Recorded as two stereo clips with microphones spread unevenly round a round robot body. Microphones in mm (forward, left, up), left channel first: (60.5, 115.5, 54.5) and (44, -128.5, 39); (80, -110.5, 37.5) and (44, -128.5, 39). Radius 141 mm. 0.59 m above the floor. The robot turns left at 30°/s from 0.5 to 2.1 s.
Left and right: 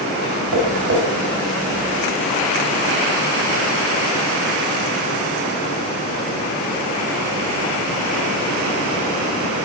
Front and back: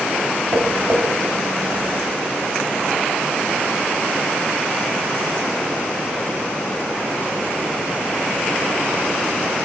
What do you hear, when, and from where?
0.5 s tapping: 125° right, 3.5 m; by 1.0 s 140° right, 3.5 m